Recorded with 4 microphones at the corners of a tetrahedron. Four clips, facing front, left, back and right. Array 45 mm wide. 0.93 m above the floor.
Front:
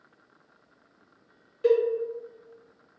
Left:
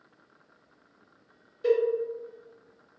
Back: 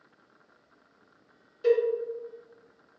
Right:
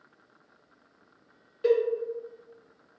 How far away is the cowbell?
About 1.2 m.